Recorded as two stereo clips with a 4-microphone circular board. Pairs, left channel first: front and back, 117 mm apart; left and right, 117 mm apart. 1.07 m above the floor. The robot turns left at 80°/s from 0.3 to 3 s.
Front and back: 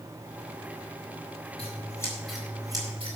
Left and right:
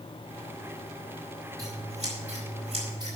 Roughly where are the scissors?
Ahead right.